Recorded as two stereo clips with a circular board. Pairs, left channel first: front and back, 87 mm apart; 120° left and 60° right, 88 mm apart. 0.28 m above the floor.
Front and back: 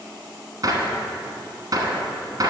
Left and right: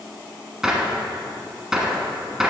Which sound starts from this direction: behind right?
A gunshot, at 0.6 s.